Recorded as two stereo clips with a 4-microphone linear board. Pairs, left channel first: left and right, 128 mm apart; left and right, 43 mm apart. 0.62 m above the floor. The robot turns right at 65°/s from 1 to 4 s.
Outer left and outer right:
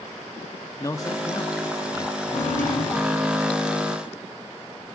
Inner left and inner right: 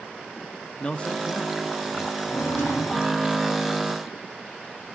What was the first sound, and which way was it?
A man speaking, 25° left (ahead or behind).